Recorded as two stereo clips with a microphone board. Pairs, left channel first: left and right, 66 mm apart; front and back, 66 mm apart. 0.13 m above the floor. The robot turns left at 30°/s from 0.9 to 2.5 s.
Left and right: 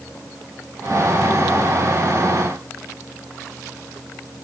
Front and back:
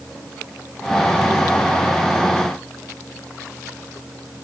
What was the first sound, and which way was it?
Only background noise.